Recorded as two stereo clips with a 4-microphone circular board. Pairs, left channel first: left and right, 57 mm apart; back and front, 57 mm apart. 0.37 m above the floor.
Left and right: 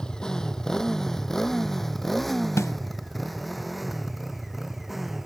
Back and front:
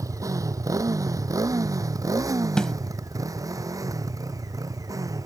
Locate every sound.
0.0 s a motorcycle: 15° left; by 5.3 s straight ahead
2.6 s a snare drum: 105° left